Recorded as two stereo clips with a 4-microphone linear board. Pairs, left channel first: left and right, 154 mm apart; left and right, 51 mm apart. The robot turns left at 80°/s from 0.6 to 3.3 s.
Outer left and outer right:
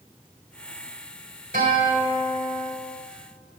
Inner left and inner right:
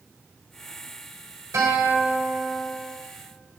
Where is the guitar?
80° right, 2 m; by 2.7 s 170° right, 2 m.